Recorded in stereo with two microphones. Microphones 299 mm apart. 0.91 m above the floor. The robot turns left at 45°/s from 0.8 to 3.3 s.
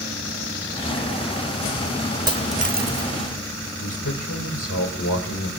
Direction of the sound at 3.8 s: 85° left.